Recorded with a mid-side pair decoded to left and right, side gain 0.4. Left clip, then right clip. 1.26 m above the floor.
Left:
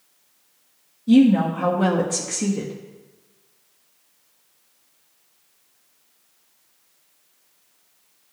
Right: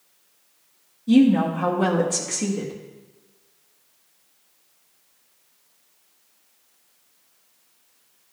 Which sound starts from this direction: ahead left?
A woman speaking, at 1.1 s.